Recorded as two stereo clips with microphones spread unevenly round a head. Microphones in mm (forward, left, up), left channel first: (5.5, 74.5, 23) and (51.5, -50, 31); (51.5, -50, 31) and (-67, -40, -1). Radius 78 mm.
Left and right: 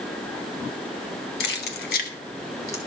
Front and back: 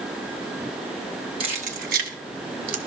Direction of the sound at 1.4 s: 115° left.